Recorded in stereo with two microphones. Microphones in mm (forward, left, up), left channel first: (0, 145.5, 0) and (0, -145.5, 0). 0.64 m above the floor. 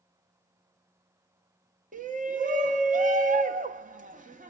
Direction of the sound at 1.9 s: 30° right (ahead or behind).